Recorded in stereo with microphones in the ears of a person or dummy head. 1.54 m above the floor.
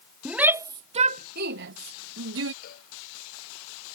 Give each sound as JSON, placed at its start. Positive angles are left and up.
{"t": 0.2, "sound": "a shout", "side_deg": -5}
{"t": 2.6, "sound": "a cowbell", "side_deg": 55}